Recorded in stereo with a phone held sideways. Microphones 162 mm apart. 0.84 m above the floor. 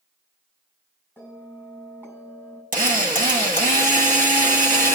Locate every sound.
1.2 s a bell: 15° right (ahead or behind), 7 m
2.7 s a drill: 55° right (ahead or behind), 1.3 m